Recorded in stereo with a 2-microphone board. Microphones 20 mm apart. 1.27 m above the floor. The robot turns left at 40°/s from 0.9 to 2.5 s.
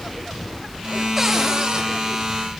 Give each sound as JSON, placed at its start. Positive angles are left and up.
{"t": 1.2, "sound": "a cupboard door", "side_deg": -20, "distance_m": 3.0}